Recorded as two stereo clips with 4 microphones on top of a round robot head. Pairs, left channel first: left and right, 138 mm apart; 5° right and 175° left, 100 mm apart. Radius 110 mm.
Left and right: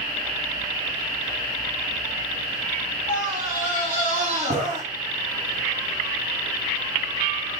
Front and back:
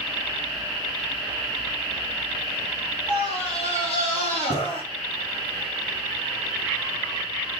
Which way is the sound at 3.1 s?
5° right.